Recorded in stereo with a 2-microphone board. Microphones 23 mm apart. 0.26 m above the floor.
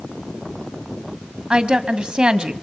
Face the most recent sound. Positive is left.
turn(degrees=-45)  # may be behind; listen again after turning